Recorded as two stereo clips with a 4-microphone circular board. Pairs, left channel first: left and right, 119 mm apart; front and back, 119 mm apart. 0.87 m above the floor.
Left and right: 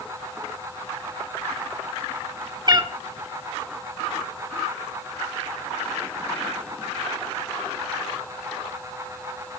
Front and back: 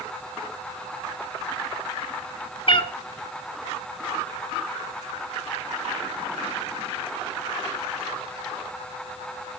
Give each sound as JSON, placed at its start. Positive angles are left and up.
{"t": 2.7, "sound": "a cat meowing", "azimuth_deg": -40, "distance_m": 1.2}